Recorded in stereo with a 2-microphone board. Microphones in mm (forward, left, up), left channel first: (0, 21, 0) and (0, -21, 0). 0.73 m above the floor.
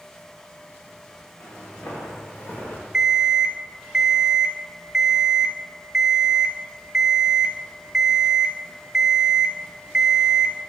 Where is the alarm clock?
15° right (ahead or behind), 0.5 m.